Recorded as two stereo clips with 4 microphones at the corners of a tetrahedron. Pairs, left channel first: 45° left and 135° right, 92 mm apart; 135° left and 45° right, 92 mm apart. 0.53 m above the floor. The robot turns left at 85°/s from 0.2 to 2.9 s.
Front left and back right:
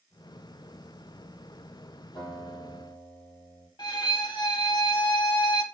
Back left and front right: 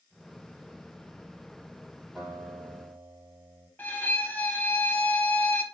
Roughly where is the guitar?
Ahead left.